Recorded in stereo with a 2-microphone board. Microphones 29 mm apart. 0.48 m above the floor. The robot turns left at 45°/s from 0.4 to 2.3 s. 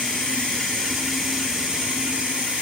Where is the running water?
30° left, 1.1 m; by 2.6 s 55° right, 1.1 m.